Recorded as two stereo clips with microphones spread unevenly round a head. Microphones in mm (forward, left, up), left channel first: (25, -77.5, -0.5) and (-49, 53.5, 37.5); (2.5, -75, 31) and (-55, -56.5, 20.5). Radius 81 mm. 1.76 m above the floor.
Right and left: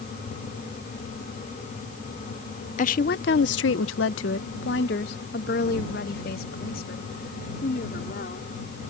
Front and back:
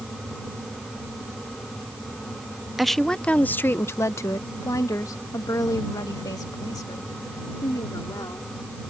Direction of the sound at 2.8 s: 105° right.